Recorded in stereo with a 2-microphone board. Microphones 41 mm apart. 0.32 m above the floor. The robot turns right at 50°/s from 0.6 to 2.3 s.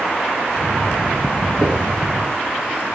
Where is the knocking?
25° right (ahead or behind), 5.5 m; by 1.8 s 35° right (ahead or behind), 5.5 m.